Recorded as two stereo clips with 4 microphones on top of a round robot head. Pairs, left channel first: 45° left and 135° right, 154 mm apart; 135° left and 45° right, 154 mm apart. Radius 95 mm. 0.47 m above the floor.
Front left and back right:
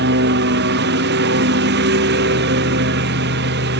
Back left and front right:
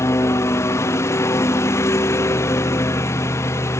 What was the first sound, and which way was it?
A lawn mower, 150° right.